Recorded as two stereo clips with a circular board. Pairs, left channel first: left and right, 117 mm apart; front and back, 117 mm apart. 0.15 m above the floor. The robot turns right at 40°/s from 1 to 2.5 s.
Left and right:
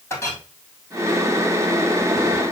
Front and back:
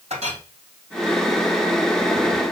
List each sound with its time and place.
0.1 s a clink: 155° left, 2.5 m